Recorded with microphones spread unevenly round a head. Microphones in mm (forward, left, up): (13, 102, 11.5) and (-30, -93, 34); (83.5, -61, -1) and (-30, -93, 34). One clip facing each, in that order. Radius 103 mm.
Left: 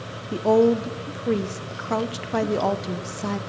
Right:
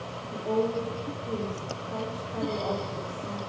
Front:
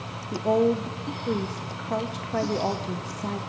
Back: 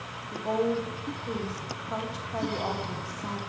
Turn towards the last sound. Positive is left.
turn(degrees=70)